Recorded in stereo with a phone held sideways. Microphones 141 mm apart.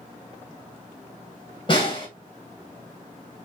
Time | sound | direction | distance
1.7 | a snare drum | 35° left (ahead or behind) | 2 m